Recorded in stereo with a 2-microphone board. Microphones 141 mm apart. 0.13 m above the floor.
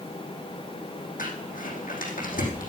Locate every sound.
1.2 s crumpling: 75° left (ahead or behind), 4.5 m